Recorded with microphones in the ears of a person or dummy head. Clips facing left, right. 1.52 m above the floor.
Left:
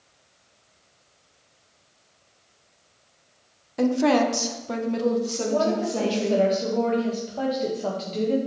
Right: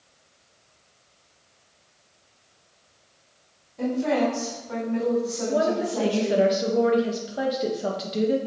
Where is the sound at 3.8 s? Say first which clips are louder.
Left 3 dB; 80° left, 1.2 m; by 6.5 s 30° left (ahead or behind), 2 m.